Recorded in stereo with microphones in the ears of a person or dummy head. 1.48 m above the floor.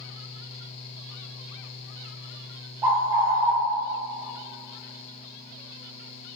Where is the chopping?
I don't hear chopping.